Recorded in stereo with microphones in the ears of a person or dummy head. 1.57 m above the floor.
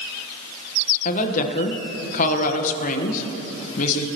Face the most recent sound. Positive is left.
turn(degrees=50)  # may be behind; listen again after turning